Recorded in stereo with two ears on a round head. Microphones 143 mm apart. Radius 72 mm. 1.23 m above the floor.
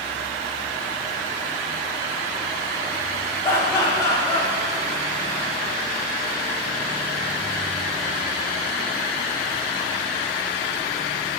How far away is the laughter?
About 0.9 m.